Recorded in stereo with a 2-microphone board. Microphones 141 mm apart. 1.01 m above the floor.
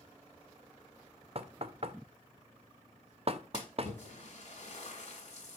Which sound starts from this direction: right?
Knocking, at 1.4 s.